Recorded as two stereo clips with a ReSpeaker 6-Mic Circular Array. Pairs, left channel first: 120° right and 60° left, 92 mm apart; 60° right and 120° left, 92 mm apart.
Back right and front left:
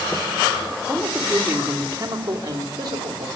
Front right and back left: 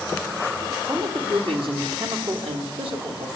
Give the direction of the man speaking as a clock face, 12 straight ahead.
7 o'clock.